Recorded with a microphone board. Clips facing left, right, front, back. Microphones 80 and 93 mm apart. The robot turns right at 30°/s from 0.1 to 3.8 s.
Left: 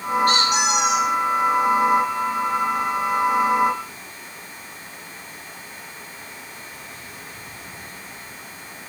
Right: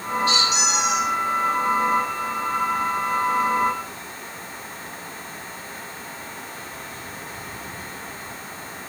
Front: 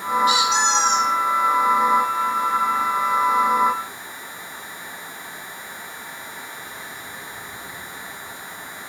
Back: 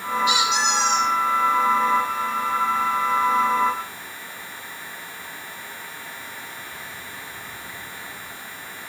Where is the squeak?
45° left, 6 m; by 1.1 s 70° left, 6 m.